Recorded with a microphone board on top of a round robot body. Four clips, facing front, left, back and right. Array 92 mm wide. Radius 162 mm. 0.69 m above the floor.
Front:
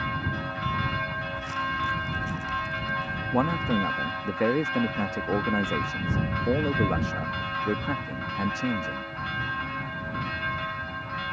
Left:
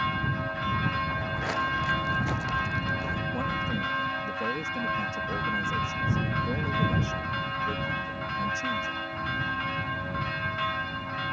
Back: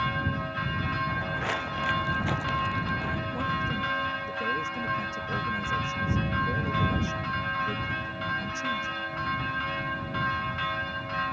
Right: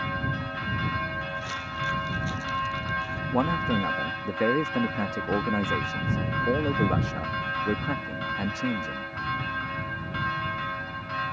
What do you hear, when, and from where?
1.1 s footsteps: 145° left; by 3.2 s 155° left
3.3 s a man speaking: 45° right